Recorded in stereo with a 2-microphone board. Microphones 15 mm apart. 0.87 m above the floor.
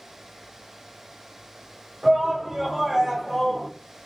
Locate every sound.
2.0 s a shout: 30° right (ahead or behind), 2.5 m; by 3.7 s 30° left (ahead or behind), 1.2 m